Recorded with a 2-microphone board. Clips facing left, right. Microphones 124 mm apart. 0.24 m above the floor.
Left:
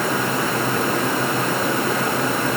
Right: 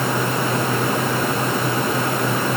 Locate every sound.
Only background noise.